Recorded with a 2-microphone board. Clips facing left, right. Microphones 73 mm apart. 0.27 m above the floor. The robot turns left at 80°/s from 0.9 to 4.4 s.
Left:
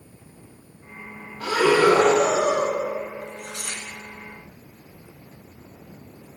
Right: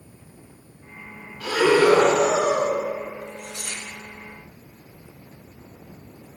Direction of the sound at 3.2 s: 105° left.